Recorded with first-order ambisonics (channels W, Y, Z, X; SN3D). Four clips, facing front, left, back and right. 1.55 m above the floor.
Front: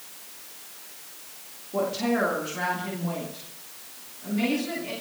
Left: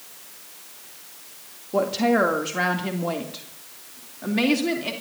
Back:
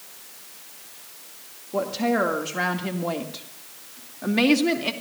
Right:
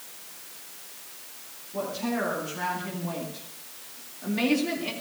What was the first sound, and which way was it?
A woman speaking, 105° left.